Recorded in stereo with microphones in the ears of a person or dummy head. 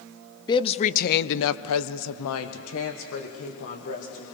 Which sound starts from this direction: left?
A woman speaking, at 0.5 s.